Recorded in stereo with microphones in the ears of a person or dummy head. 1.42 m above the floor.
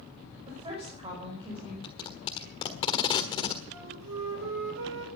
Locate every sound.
0.5 s a woman speaking: 35° right (ahead or behind), 5.5 m; by 1.7 s 30° right (ahead or behind), 4.5 m
1.8 s tape being pulled: 30° left (ahead or behind), 1.4 m
3.7 s a flute: 80° right, 3.5 m